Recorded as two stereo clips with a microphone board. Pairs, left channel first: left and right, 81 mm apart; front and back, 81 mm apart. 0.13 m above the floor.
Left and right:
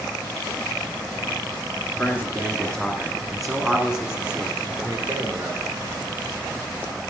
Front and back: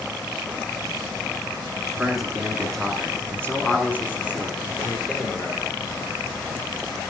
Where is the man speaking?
110° left, 1.8 m; by 5.7 s 40° right, 2.5 m.